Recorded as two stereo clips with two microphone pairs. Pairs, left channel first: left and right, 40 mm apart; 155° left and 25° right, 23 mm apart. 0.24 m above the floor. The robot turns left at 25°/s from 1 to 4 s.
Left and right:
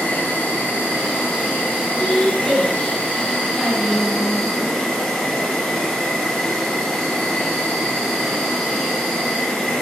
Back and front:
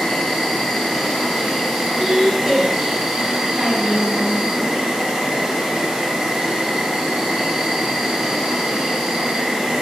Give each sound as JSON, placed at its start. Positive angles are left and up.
{"t": 0.0, "sound": "an insect", "azimuth_deg": 85, "distance_m": 1.0}
{"t": 2.0, "sound": "a woman speaking", "azimuth_deg": 10, "distance_m": 1.0}